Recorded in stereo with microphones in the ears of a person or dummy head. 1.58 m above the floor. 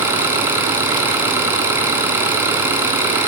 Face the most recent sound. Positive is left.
turn(degrees=-5)  # may be behind; listen again after turning